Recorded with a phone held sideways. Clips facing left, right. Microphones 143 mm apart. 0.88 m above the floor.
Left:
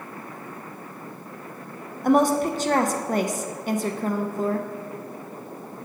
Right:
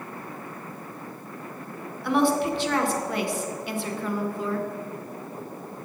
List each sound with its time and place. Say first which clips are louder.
2.0 s a woman speaking: left 3 dB; 45° left (ahead or behind), 0.6 m